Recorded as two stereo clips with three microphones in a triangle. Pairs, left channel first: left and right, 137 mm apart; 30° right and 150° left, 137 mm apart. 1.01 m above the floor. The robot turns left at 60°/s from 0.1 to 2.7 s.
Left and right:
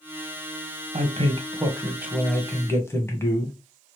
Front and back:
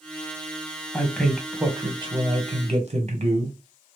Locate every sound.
0.9 s a man speaking: 100° right, 1.0 m; by 3.5 s 155° left, 1.0 m